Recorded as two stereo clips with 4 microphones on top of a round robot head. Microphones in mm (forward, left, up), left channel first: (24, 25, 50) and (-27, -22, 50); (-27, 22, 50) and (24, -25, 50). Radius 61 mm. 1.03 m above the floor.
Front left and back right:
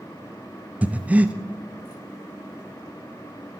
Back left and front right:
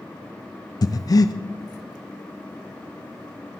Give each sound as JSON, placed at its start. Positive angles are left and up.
{"t": 0.8, "sound": "breathing", "azimuth_deg": 155, "distance_m": 0.8}